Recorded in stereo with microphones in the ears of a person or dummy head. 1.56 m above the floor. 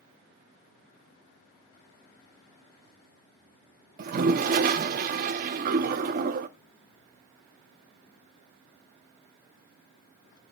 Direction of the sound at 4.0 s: 50° right (ahead or behind).